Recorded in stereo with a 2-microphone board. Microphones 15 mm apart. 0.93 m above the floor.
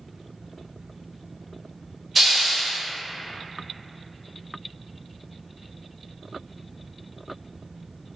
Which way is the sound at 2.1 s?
Centre (ahead or behind).